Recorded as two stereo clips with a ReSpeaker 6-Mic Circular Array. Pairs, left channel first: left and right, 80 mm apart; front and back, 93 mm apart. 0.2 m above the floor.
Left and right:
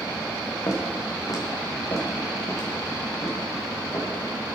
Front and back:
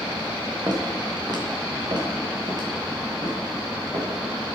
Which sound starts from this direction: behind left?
Footsteps, at 0.7 s.